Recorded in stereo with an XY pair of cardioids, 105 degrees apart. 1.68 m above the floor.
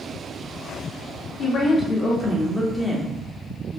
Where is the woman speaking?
45° left, 1.2 m; by 3.8 s 40° right, 0.8 m.